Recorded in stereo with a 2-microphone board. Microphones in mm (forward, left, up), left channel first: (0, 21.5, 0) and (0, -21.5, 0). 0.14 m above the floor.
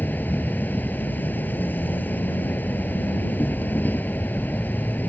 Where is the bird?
No bird in this recording.